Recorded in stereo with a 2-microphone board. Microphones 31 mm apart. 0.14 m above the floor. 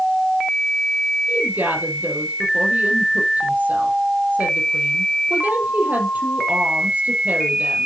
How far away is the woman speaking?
About 5 m.